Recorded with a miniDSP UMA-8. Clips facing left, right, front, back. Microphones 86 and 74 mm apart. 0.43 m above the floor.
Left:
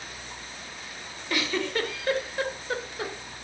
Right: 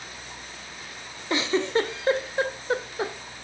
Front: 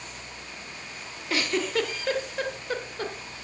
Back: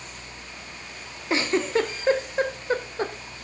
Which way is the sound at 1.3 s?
135° right.